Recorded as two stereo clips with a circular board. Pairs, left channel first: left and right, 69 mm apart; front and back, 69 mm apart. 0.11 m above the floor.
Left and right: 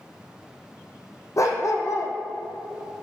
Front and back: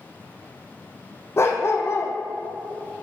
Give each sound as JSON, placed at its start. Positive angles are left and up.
{"t": 1.4, "sound": "a dog barking", "azimuth_deg": 50, "distance_m": 1.5}